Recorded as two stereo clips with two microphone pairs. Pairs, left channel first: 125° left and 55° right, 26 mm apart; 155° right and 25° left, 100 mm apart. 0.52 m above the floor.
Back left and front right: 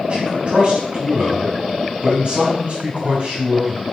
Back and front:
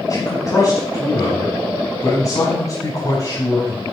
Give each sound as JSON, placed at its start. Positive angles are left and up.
{"t": 0.1, "sound": "a man speaking", "azimuth_deg": -100, "distance_m": 4.0}